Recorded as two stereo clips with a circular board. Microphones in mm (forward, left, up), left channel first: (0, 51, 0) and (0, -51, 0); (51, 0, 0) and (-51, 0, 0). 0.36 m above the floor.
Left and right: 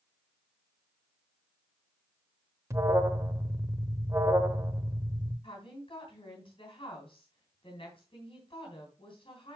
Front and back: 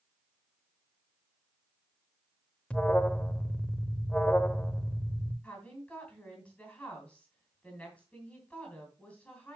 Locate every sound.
2.7 s an alarm: 70° right, 0.7 m
5.4 s a woman speaking: 75° left, 3 m